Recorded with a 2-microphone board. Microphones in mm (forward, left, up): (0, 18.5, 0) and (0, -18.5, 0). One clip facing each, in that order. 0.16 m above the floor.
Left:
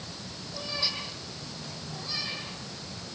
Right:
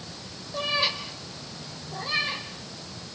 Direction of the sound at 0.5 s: 60° right (ahead or behind).